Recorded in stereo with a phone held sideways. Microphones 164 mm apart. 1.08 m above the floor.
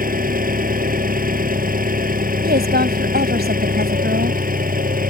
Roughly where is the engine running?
Right.